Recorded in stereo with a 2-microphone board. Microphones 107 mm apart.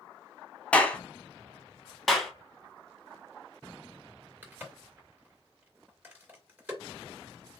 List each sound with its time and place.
0.7 s a clap: 10° left (ahead or behind), 0.8 m
2.1 s a clap: centre (ahead or behind), 1.1 m
4.4 s a crack: 15° right (ahead or behind), 2 m